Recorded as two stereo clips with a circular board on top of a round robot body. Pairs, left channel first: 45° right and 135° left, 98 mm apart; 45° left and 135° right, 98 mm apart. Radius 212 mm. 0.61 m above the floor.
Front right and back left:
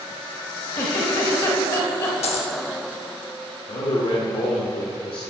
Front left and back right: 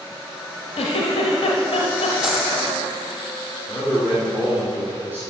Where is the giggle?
5° left, 0.6 m.